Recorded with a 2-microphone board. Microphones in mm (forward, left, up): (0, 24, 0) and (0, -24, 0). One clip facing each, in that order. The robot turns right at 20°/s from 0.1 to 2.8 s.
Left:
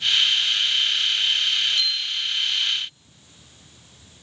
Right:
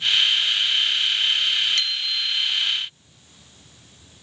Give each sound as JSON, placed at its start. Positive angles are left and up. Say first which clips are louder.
{"t": 1.8, "sound": "a bicycle bell", "louder": "even", "side_deg": -65, "distance_m": 3.5}